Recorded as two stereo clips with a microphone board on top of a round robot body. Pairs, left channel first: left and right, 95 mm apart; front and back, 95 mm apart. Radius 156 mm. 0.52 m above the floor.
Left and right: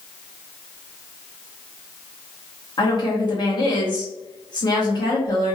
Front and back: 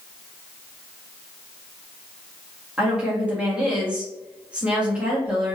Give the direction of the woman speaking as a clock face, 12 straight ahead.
9 o'clock.